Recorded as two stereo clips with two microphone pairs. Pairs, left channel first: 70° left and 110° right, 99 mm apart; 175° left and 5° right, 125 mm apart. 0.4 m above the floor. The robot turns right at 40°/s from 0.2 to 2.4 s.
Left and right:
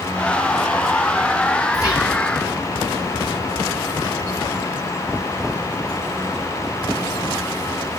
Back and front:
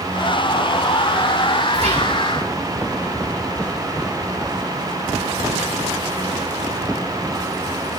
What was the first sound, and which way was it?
Whispering, 15° left.